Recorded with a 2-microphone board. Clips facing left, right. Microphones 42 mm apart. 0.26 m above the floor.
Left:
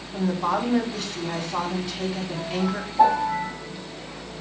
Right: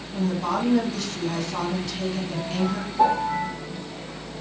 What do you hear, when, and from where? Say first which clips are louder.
0.1 s a woman speaking: left 1 dB; 20° left (ahead or behind), 2 m
3.0 s a piano: left 2 dB; 5° left (ahead or behind), 4 m